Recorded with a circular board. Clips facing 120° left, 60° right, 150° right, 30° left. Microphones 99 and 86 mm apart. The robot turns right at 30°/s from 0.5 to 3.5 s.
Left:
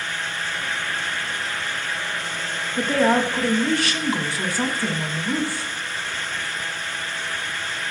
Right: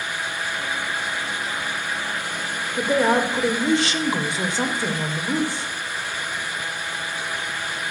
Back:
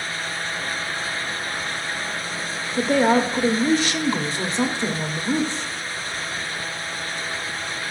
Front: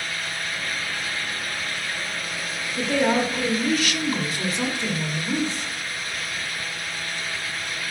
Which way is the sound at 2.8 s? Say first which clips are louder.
Even, back 4 dB; 135° right.